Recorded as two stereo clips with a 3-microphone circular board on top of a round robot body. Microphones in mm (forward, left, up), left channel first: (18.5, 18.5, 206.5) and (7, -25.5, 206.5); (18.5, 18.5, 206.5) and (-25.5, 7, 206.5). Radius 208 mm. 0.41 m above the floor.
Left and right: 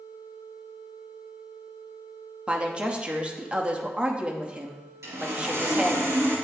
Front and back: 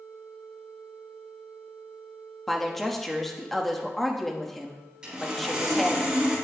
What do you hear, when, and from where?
2.5 s a woman speaking: 65° right, 1.4 m
5.0 s sawing: 95° right, 3.5 m